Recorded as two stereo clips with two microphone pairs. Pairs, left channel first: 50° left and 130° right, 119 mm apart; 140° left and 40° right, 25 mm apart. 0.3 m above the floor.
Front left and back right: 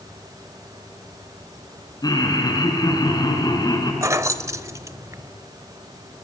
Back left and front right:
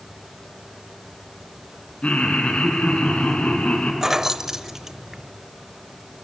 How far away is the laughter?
About 4 m.